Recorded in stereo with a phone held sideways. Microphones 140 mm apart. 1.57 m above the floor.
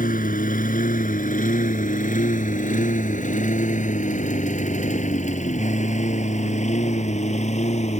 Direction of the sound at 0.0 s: 75° left (ahead or behind).